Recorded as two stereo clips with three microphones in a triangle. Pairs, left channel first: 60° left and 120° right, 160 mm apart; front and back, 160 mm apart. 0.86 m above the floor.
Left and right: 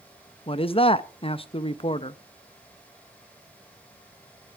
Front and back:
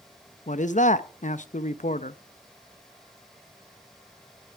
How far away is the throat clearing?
No throat clearing in this recording.